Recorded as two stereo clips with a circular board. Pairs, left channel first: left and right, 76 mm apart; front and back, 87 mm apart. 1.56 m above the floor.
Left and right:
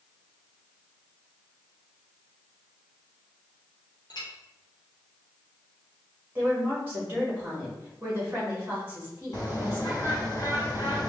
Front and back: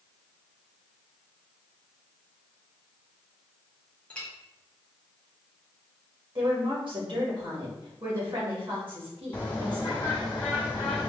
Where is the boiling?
I don't hear boiling.